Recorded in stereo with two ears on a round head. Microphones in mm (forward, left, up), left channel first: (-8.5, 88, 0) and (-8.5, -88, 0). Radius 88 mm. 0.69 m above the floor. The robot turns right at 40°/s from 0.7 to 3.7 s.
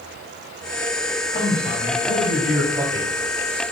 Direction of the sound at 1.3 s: 150° left.